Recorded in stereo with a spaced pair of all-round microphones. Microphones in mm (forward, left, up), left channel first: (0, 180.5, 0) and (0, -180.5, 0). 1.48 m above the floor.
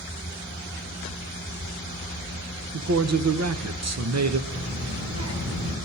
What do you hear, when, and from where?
2.7 s a man speaking: 50° right (ahead or behind), 0.6 m
4.5 s a child speaking: 40° right (ahead or behind), 3 m